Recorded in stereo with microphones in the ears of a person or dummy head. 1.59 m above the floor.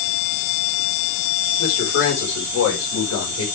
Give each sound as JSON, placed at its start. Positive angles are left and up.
{"t": 1.6, "sound": "a man speaking", "side_deg": 80, "distance_m": 6.0}